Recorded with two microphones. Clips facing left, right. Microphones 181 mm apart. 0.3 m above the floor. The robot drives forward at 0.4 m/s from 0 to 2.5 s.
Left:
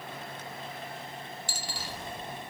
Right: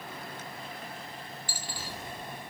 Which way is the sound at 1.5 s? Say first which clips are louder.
Left 1 dB; 80° left.